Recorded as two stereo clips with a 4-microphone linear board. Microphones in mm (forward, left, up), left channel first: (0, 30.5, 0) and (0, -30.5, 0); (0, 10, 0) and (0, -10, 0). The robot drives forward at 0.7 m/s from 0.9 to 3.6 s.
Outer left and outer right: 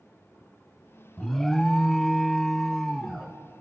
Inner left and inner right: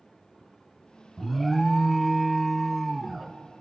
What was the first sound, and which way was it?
An alarm, 5° left (ahead or behind).